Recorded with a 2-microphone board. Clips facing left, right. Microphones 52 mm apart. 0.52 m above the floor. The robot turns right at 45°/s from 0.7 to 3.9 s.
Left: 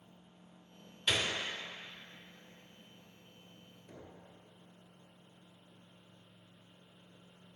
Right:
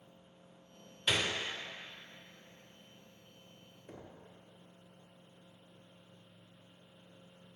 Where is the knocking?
35° right (ahead or behind), 1.0 m.